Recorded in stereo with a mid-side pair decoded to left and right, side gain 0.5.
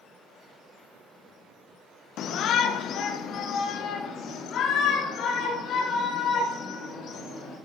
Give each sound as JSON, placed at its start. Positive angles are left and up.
{"t": 2.2, "sound": "a shout", "azimuth_deg": 65, "distance_m": 1.3}